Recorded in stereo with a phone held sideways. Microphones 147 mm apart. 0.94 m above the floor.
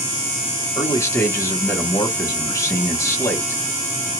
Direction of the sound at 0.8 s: 20° left (ahead or behind).